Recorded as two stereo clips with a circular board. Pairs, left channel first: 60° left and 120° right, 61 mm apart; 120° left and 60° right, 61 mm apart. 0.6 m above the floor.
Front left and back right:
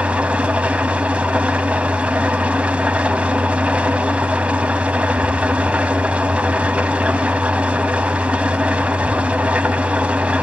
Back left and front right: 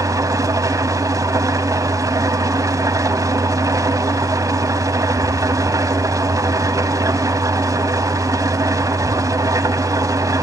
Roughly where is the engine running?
Ahead right.